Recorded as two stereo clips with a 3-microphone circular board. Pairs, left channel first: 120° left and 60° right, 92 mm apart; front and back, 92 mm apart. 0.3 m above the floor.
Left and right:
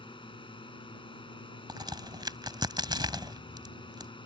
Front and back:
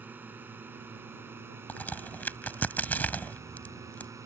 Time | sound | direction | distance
0.0 | a drone | 110° left | ?
1.7 | a crack | 65° right | ?